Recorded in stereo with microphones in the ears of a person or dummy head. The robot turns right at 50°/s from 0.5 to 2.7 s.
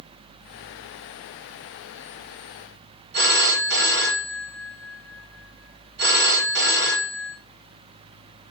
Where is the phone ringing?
55° right (ahead or behind), 1.2 m.